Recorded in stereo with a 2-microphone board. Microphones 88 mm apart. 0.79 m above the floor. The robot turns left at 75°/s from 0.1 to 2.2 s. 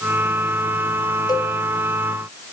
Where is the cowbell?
55° left (ahead or behind), 3.5 m; by 1.5 s 35° left (ahead or behind), 3.5 m.